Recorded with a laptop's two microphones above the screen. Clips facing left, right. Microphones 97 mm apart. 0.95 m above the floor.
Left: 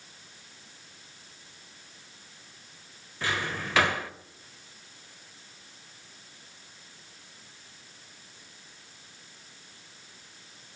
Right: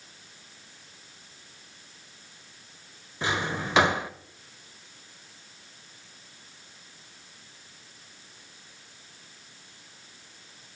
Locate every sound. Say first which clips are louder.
3.2 s a drawer: right 3 dB; 20° right (ahead or behind), 0.8 m